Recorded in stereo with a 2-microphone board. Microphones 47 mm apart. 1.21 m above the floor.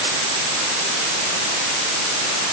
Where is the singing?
No singing in this recording.